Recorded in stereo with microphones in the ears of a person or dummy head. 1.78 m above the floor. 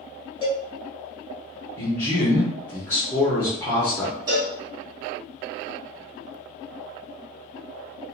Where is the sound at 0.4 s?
30° left (ahead or behind), 1.2 m.